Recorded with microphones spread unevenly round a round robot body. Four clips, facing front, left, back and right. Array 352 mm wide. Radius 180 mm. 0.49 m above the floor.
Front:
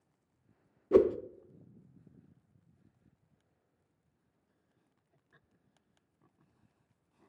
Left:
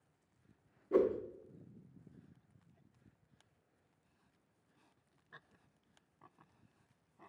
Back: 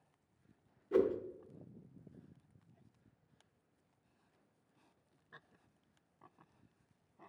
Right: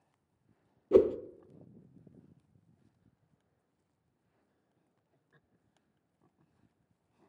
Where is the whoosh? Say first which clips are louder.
Right 7 dB, front 7 dB; 65° right, 0.5 m.